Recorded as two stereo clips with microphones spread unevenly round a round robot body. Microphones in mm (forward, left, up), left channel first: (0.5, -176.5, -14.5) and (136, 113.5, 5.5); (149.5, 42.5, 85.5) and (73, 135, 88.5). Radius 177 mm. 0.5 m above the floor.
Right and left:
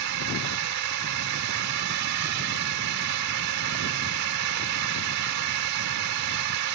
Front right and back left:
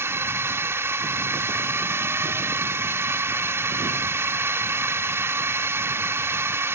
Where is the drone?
65° left.